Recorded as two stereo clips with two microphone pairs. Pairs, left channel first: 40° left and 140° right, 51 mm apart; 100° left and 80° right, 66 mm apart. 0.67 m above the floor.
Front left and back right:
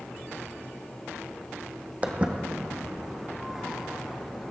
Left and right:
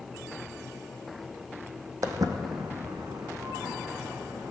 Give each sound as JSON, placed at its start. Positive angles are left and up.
{"t": 2.0, "sound": "footsteps", "azimuth_deg": -85, "distance_m": 1.1}